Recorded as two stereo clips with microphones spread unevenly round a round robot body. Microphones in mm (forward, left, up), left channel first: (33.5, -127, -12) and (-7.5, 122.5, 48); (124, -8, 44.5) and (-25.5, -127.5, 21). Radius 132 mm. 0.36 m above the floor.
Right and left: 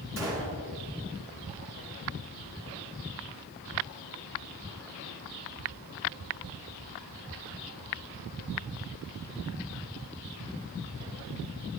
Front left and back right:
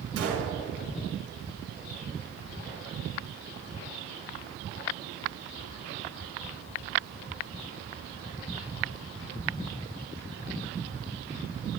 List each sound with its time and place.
0.2 s a gunshot: 175° right, 5 m